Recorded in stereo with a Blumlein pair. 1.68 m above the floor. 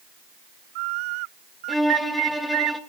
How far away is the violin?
About 1.0 m.